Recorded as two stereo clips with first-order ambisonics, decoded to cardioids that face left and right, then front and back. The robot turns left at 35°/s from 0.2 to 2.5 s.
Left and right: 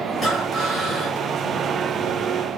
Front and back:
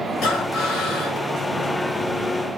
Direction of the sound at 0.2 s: 5° left.